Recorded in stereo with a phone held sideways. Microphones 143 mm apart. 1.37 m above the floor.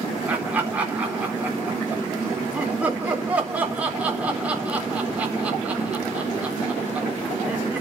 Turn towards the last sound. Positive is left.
turn(degrees=-10)  # may be behind; listen again after turning